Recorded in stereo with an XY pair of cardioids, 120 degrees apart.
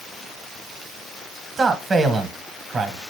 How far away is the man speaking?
About 1.0 m.